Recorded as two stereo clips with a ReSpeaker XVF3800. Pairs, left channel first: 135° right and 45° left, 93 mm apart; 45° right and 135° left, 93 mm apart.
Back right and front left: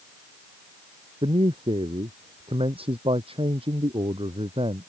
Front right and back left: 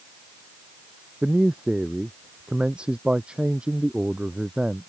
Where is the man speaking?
55° left.